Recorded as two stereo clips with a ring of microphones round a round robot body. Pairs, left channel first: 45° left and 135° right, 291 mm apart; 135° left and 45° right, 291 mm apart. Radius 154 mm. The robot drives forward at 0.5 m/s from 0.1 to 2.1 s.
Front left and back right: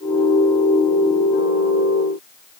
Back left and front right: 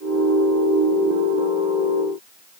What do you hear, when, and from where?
Only background noise.